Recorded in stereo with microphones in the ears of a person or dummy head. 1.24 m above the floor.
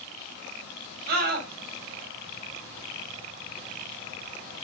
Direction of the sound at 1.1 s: 55° right (ahead or behind).